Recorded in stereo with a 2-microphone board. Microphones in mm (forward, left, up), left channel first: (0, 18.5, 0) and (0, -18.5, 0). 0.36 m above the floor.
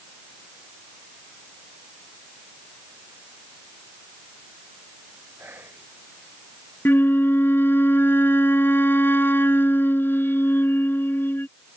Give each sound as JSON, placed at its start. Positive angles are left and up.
{"t": 5.4, "sound": "whispering", "side_deg": -70}
{"t": 6.8, "sound": "a flute", "side_deg": 75}